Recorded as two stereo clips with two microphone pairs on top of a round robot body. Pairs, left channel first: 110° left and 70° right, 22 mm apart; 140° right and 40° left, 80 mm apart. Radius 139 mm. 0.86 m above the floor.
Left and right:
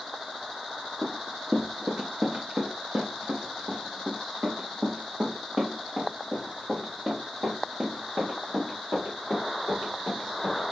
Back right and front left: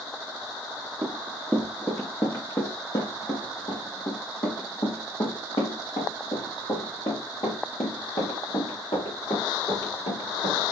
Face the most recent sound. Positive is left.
turn(degrees=-125)